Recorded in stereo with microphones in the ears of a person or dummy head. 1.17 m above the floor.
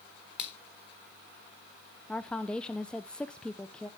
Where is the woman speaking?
Centre (ahead or behind), 0.6 m.